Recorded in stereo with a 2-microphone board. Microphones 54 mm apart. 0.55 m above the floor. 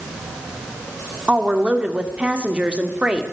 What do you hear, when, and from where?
1.3 s a woman speaking: 25° right (ahead or behind), 1.6 m